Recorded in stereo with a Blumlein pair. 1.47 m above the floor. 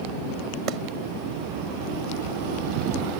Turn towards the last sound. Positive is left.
turn(degrees=-35)